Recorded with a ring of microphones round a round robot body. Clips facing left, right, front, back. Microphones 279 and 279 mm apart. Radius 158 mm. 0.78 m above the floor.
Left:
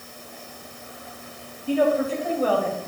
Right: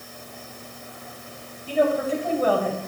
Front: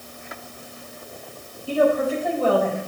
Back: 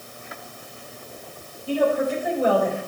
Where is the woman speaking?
110° right, 4 m; by 2.8 s 105° right, 3 m.